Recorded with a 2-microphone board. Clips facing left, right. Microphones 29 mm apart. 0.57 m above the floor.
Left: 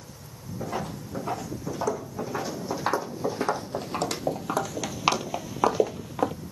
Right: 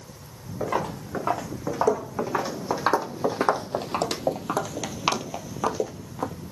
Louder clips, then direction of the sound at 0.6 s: Right 5 dB; 50° right (ahead or behind).